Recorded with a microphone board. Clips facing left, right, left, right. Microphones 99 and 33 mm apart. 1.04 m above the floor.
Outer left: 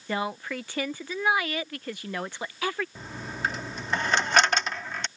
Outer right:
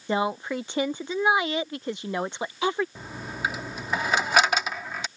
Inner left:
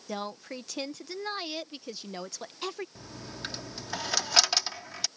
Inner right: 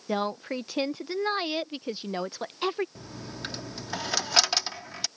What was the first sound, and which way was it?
A woman speaking, 20° right (ahead or behind).